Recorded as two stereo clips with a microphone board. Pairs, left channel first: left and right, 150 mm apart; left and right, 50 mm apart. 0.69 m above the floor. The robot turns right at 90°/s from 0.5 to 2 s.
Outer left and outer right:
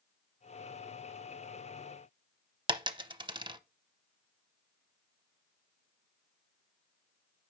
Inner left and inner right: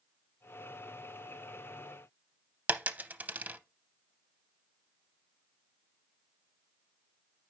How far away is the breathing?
No breathing in this recording.